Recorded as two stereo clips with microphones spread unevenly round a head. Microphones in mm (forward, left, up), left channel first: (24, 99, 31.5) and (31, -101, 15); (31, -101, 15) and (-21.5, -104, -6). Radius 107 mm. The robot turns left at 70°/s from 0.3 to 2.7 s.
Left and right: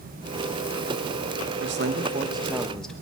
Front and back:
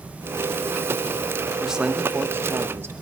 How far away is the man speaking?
About 1.0 m.